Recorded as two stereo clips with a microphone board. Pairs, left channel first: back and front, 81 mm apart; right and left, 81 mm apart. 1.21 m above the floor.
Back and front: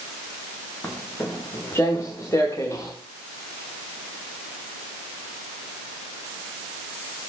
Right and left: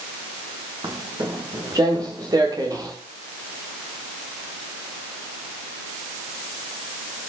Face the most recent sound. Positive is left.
turn(degrees=130)